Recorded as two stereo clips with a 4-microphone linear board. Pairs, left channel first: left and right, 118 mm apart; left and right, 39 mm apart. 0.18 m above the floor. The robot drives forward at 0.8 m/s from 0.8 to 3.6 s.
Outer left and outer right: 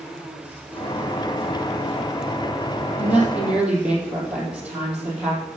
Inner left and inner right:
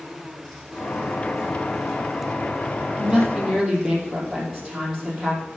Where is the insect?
10° right (ahead or behind), 5.5 m.